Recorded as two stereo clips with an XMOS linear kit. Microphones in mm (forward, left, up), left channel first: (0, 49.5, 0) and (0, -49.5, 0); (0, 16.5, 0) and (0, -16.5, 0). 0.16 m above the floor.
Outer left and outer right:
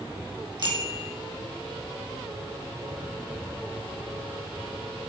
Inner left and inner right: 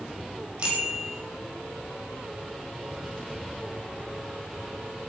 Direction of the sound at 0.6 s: 45° right (ahead or behind).